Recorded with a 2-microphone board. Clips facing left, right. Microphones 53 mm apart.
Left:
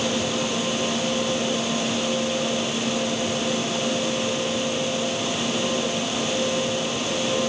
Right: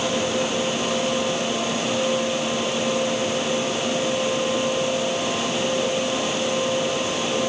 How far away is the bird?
I don't hear a bird.